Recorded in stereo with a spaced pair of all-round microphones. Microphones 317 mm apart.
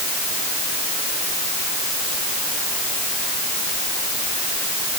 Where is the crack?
No crack in this recording.